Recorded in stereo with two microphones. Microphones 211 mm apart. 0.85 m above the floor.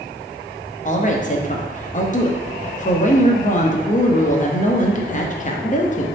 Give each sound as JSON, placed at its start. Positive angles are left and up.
{"t": 0.8, "sound": "a woman speaking", "side_deg": 40, "distance_m": 0.6}